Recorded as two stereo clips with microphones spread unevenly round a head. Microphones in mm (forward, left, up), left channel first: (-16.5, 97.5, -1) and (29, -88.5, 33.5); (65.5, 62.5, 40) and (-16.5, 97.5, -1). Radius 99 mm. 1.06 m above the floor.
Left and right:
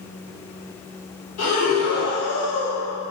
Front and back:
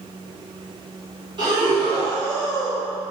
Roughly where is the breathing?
Behind left.